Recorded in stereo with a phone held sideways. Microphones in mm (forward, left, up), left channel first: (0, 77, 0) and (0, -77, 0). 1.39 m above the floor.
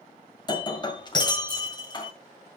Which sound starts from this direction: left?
Breaking glass, at 0.5 s.